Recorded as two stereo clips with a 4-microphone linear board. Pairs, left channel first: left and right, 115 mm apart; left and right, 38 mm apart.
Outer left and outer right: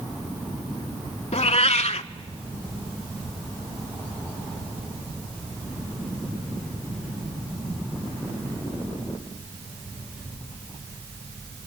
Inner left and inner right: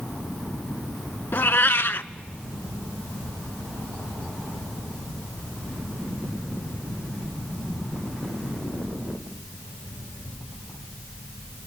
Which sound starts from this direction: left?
A cat meowing, at 1.3 s.